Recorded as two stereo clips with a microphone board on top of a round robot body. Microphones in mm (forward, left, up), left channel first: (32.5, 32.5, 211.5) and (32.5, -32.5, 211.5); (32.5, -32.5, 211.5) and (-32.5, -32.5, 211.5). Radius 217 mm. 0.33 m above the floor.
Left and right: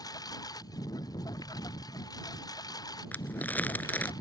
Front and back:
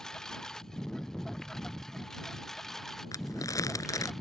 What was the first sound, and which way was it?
A lawn mower, 80° left.